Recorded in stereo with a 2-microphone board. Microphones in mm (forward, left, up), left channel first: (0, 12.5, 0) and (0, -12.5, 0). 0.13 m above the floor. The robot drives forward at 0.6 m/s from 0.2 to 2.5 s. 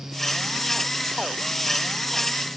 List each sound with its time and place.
Only background noise.